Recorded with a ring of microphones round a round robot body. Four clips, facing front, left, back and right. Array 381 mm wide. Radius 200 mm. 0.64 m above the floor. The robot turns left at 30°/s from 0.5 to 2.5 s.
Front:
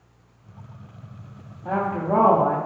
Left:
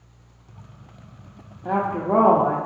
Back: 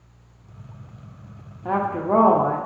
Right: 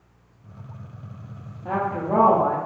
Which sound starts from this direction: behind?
A woman speaking, at 1.6 s.